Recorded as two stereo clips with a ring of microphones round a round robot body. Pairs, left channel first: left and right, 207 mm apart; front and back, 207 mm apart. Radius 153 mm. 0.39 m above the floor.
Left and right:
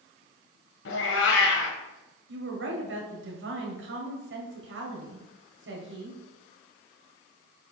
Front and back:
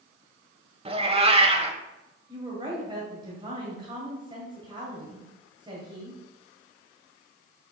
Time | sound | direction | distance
0.8 | a cat meowing | 115° left | 1.2 m
2.3 | a woman speaking | 110° right | 1.9 m